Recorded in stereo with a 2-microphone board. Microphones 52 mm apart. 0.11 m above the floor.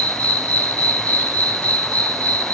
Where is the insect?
25° left (ahead or behind), 1.5 m.